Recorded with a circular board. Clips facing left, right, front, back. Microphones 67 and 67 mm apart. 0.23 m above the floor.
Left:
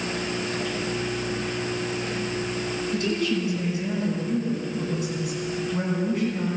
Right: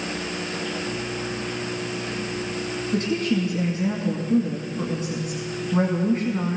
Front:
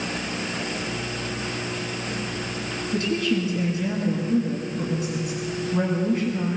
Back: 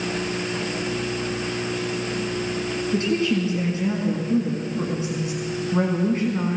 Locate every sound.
2.9 s a woman speaking: 130° right, 1.9 m